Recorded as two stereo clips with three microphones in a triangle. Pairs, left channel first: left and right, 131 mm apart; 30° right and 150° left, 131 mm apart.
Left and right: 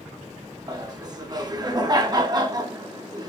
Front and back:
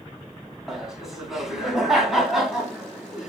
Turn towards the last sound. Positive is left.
turn(degrees=-125)